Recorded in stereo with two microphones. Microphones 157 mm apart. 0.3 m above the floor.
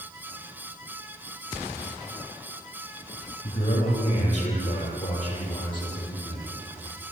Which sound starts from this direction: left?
A man speaking, at 3.4 s.